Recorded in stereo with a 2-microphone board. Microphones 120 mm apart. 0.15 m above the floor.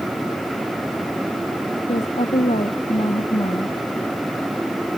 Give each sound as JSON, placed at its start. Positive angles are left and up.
{"t": 1.9, "sound": "a woman speaking", "side_deg": 70}